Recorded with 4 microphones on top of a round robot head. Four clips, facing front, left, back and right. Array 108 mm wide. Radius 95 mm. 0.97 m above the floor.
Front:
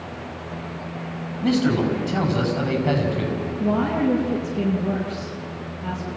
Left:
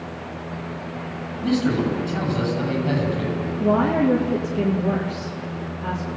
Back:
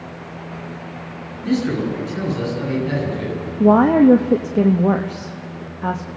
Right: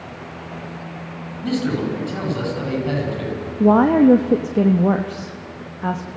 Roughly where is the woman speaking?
Behind right.